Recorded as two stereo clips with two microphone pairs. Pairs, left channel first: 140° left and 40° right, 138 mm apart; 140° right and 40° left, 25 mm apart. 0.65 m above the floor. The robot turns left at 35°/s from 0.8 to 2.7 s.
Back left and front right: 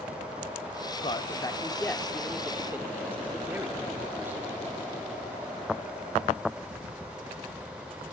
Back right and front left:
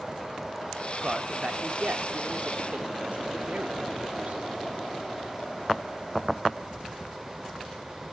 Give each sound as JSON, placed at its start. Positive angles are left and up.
{"t": 1.0, "sound": "a man speaking", "azimuth_deg": 95, "distance_m": 1.5}